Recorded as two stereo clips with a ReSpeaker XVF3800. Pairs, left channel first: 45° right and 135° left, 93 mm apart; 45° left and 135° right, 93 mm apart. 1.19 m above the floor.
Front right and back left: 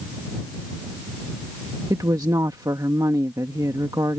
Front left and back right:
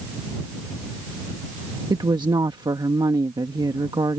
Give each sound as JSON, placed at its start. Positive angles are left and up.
{"t": 1.9, "sound": "a woman speaking", "azimuth_deg": -175}